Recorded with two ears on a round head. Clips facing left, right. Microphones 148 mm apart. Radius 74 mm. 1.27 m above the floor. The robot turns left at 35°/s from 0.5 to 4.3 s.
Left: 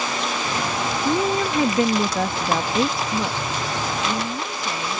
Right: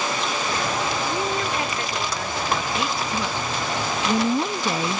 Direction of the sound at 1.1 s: 90° left.